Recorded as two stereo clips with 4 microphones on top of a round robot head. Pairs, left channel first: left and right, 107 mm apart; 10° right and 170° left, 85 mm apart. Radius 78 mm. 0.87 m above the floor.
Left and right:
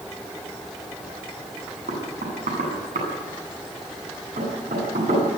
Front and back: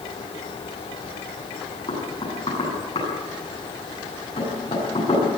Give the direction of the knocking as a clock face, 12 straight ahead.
2 o'clock.